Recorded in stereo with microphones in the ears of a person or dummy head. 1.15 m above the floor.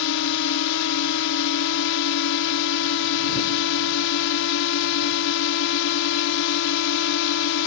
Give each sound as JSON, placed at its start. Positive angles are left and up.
{"t": 0.0, "sound": "a drone", "side_deg": 65}